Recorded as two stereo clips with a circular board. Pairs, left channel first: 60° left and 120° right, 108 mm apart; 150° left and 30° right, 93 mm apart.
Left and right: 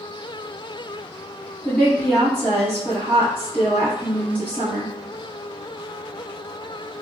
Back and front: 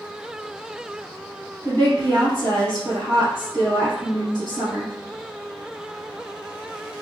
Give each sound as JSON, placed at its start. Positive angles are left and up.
{"t": 1.6, "sound": "a woman speaking", "azimuth_deg": -45, "distance_m": 1.4}